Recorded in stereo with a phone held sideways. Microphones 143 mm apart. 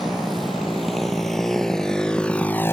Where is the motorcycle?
Centre (ahead or behind); by 2.7 s 20° left (ahead or behind).